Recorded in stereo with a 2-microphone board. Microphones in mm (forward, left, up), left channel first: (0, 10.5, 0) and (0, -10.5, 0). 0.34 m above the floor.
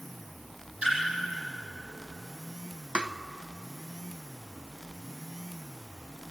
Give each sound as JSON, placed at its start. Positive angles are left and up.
{"t": 0.8, "sound": "a splash", "side_deg": -65, "distance_m": 10.0}
{"t": 3.0, "sound": "tapping", "side_deg": -50, "distance_m": 0.8}